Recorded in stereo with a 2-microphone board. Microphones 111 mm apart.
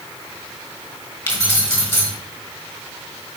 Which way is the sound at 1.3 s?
20° left (ahead or behind).